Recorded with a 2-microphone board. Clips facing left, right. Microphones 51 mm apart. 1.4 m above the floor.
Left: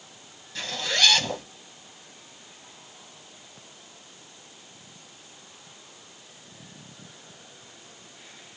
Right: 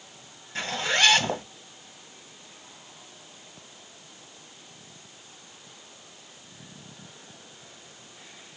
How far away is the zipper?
About 1.5 m.